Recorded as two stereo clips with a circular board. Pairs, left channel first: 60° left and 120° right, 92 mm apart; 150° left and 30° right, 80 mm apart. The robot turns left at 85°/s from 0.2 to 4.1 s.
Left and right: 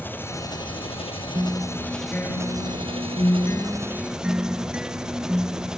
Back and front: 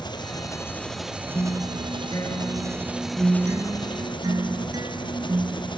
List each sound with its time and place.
0.0 s an engine running: 130° left; by 5.8 s 155° left
1.4 s a guitar: 170° right; by 5.8 s 45° right